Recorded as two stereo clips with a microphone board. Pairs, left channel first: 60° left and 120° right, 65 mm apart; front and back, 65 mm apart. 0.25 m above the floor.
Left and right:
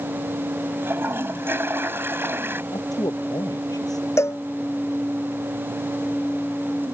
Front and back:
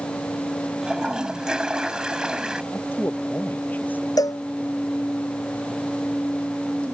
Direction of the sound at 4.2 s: 15° left.